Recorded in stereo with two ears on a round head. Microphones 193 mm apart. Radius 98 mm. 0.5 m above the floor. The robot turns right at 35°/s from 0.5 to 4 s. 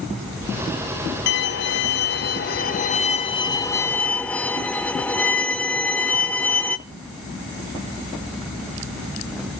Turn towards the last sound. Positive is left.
turn(degrees=170)